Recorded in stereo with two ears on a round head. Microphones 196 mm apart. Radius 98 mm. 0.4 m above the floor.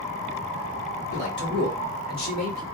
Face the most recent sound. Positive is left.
turn(degrees=40)  # may be behind; listen again after turning